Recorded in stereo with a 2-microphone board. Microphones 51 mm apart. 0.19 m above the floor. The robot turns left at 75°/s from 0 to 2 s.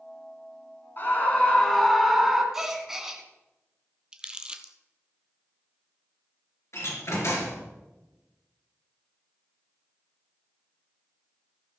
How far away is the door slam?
About 2.5 m.